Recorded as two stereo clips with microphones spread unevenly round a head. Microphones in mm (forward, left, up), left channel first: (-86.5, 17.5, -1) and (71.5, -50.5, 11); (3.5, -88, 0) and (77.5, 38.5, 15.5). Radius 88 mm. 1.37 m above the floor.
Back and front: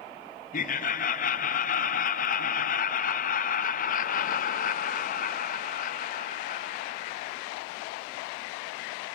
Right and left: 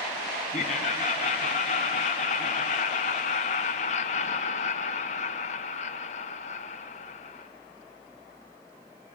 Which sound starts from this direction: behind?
Laughter, at 0.5 s.